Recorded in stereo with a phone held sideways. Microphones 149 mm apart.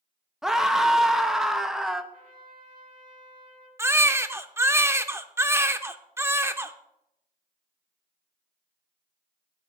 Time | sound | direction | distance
0.4 | a scream | 5° right (ahead or behind) | 0.9 m
2.1 | a trumpet | 70° right (ahead or behind) | 2 m
3.8 | a baby crying | 15° right (ahead or behind) | 0.5 m